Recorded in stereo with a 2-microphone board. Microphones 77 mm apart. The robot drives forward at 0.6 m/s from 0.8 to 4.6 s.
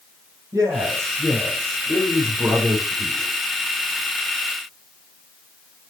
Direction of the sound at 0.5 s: 45° right (ahead or behind).